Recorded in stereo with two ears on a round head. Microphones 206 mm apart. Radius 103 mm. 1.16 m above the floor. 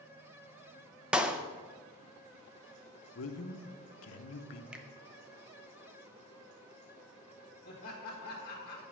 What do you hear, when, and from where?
1.1 s a clap: 5° right (ahead or behind), 0.6 m
3.1 s a man speaking: 65° left (ahead or behind), 0.9 m
4.7 s a finger snap: 5° right (ahead or behind), 0.7 m
7.7 s laughter: 35° left (ahead or behind), 1.9 m